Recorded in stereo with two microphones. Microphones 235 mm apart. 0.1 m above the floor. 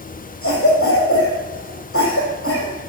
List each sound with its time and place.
0.4 s a cough: 60° left (ahead or behind), 5 m